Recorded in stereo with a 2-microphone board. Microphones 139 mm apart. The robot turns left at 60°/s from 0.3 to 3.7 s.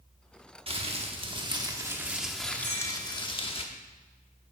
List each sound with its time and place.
0.7 s crumpling: 80° right, 0.7 m; by 3.6 s 105° left, 0.7 m
2.6 s a clink: 30° right (ahead or behind), 3 m; by 3.0 s 50° right (ahead or behind), 3 m